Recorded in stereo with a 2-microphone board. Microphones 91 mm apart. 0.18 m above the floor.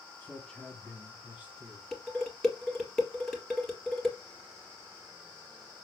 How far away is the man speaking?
About 1.5 m.